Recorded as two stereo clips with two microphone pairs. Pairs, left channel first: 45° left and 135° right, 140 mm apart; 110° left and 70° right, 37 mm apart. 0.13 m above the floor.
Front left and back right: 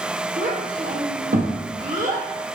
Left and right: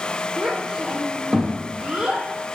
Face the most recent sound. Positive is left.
turn(degrees=-140)